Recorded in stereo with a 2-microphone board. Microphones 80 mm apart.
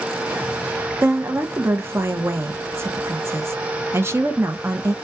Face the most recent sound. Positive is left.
turn(degrees=-30)  # may be behind; listen again after turning